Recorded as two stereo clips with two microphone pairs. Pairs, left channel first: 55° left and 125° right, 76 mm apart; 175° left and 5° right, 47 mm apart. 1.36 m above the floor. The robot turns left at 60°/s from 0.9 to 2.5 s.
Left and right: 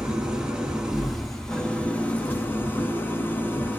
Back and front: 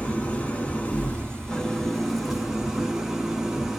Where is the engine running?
165° left, 0.7 m; by 3.8 s 70° left, 0.7 m.